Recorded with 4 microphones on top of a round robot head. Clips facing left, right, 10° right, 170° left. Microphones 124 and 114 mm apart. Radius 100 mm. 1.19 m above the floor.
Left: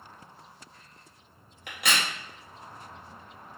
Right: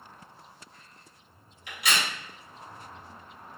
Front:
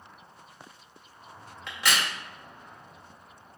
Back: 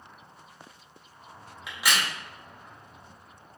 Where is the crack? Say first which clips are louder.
Even, even; 95° left, 0.5 m.